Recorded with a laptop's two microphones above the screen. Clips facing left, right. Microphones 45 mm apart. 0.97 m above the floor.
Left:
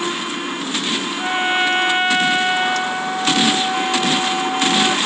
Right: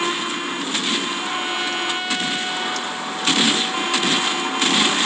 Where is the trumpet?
40° left (ahead or behind).